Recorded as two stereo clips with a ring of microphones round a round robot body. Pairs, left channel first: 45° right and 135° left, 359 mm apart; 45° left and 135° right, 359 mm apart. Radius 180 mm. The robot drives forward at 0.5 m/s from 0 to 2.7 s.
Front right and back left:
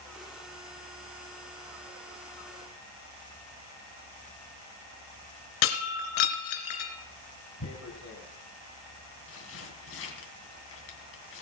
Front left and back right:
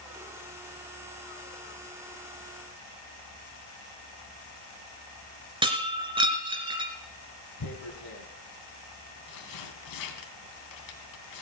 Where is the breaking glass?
60° right, 2.5 m.